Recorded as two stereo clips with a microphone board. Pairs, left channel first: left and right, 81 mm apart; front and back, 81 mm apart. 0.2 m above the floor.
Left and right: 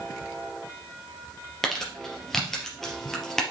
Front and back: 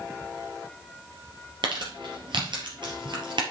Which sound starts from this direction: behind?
Crumpling, at 1.6 s.